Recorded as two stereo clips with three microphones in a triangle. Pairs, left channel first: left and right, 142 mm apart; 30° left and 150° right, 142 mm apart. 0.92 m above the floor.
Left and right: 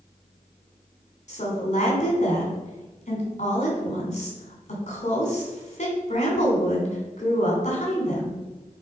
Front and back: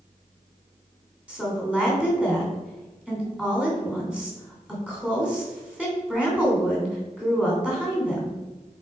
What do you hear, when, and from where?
1.3 s a woman speaking: 125° left, 3 m